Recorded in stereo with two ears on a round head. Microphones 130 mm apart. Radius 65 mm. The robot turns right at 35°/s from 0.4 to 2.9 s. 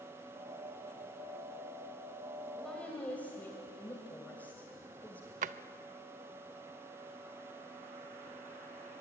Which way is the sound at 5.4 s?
50° right (ahead or behind).